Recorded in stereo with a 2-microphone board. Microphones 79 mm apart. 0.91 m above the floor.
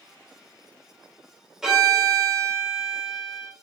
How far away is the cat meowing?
I don't hear a cat meowing.